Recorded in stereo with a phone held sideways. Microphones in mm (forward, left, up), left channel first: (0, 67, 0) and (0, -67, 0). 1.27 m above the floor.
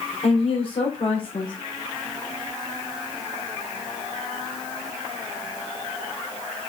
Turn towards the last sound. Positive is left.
turn(degrees=45)  # may be behind; listen again after turning